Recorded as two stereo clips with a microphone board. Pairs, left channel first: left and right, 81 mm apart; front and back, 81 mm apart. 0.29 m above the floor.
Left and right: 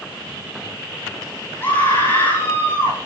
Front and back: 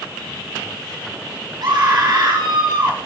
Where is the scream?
150° left, 8 m.